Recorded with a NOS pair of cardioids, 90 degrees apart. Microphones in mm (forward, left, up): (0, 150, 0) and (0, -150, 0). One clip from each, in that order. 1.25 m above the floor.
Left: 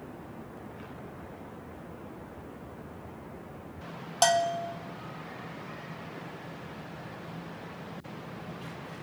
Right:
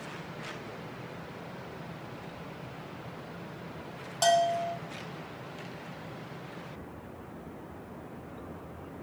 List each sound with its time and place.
4.2 s a bell: 30° left, 0.8 m